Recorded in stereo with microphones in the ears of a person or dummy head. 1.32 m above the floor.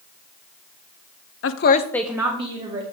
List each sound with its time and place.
1.4 s a woman speaking: 60° left (ahead or behind), 0.7 m; by 2.8 s 30° right (ahead or behind), 1.7 m